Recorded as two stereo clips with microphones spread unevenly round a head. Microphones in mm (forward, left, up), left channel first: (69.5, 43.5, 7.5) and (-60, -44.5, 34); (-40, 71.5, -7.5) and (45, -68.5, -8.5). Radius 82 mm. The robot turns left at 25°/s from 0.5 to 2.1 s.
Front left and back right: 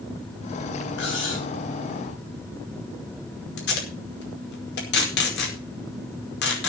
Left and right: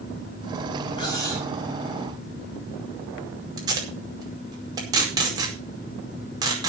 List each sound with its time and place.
1.0 s cutlery clinking: 55° left, 9 m; by 1.5 s 40° left, 9 m
3.6 s tape being pulled: 10° left, 5 m